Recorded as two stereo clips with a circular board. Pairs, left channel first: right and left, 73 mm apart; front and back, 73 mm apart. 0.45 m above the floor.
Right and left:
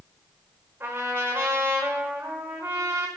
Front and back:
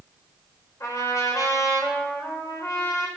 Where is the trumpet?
35° left, 1.3 m.